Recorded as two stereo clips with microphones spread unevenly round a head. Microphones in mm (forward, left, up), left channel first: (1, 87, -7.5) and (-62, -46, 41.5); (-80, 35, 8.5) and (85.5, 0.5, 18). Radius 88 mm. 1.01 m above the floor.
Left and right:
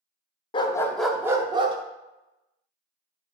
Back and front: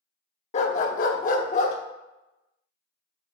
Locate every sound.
0.5 s a dog barking: 130° left, 0.6 m; by 1.8 s 145° right, 0.9 m